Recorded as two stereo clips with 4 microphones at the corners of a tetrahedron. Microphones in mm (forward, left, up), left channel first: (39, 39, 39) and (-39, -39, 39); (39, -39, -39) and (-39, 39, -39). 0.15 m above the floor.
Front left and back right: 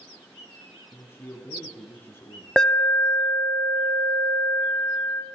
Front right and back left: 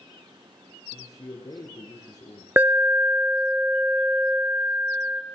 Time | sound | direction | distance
0.9 | a man speaking | 15° right | 1.6 m
2.6 | an alarm | 115° left | 0.8 m